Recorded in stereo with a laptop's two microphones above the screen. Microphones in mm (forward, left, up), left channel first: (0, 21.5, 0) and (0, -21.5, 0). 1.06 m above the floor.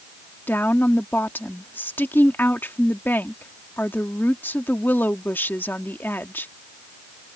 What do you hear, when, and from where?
0.5 s a woman speaking: 50° left (ahead or behind)